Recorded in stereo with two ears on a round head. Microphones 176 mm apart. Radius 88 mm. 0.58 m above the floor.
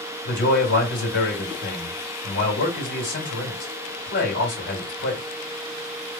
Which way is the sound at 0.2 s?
60° left (ahead or behind).